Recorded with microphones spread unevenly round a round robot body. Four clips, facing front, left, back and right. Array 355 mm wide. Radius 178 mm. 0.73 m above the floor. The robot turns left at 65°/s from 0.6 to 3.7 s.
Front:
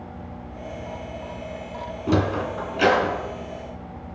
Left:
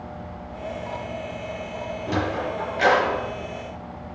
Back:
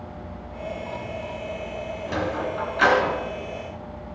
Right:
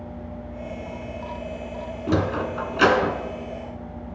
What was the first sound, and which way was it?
A sliding door, 25° right.